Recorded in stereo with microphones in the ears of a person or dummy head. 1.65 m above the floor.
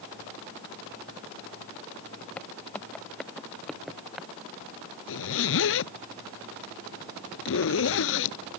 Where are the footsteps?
5° left (ahead or behind); by 4.3 s 5° right (ahead or behind).